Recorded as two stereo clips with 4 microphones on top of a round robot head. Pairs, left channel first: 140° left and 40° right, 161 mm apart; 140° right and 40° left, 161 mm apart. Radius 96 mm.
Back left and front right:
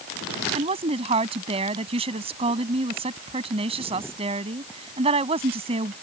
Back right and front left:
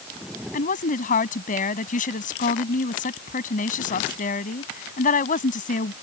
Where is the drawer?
I don't hear a drawer.